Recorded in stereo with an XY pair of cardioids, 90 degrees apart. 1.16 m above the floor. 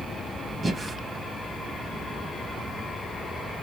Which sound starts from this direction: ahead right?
Breathing, at 0.6 s.